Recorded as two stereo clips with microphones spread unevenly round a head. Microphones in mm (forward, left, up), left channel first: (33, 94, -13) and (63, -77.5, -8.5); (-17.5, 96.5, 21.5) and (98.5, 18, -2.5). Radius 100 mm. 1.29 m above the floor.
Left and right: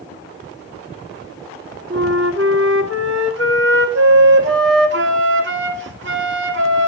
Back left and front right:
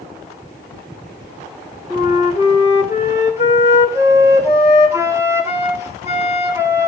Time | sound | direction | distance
1.9 | a flute | 115° right | 2 m